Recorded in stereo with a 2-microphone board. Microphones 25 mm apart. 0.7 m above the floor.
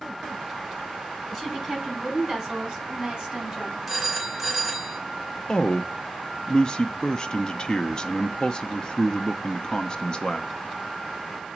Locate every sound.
1.3 s a woman speaking: centre (ahead or behind), 5.5 m; by 3.8 s 30° right (ahead or behind), 5 m
3.9 s a phone ringing: 15° right (ahead or behind), 1.5 m
5.5 s a man speaking: 30° left (ahead or behind), 0.6 m